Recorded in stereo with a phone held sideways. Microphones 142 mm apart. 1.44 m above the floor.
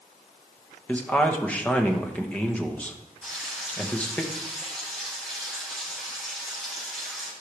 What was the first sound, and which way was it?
A man speaking, 10° left (ahead or behind).